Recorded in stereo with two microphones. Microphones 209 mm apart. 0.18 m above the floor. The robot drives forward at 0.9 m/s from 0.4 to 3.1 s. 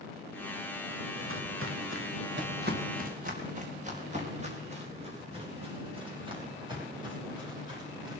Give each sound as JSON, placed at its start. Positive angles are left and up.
{"t": 1.1, "sound": "footsteps", "side_deg": -75, "distance_m": 2.5}